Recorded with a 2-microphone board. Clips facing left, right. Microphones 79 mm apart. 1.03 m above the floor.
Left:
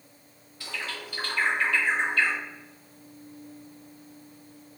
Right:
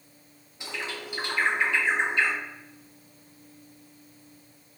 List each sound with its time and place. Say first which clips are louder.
0.6 s a bird: right 1 dB; 20° right (ahead or behind), 0.5 m